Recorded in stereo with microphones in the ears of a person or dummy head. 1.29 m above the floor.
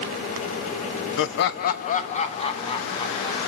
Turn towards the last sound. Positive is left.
turn(degrees=25)  # may be behind; listen again after turning